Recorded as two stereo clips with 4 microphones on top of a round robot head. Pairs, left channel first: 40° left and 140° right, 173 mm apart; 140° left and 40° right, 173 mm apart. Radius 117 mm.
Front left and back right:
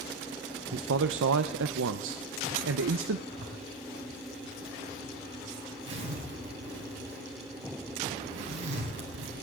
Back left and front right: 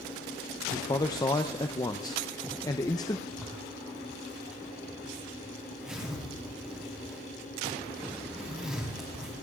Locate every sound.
0.7 s a man speaking: 150° right, 0.6 m
3.3 s a zipper: 125° right, 4.5 m